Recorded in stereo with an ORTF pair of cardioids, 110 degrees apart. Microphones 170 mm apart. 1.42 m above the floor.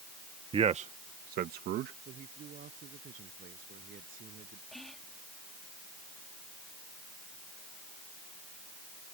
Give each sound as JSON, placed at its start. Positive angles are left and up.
{"t": 0.5, "sound": "a man speaking", "azimuth_deg": -30}
{"t": 2.0, "sound": "a man speaking", "azimuth_deg": -55}
{"t": 4.7, "sound": "whispering", "azimuth_deg": 0}